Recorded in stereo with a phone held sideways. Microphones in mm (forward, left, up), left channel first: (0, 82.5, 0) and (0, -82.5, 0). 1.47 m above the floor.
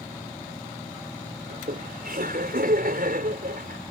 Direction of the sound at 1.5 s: 70° right (ahead or behind).